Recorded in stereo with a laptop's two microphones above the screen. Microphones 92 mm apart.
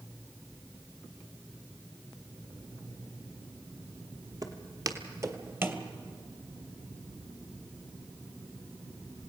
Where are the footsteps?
45° right (ahead or behind), 1.4 m; by 5.8 s 20° right (ahead or behind), 1.2 m.